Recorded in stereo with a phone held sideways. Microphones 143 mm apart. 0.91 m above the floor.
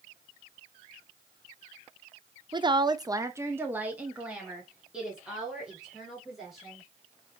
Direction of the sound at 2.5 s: 30° right (ahead or behind).